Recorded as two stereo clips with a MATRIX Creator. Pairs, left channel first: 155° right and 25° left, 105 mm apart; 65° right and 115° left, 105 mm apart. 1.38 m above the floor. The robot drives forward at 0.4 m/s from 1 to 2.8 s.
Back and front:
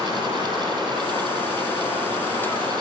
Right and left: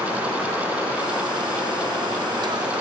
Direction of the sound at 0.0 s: 140° right.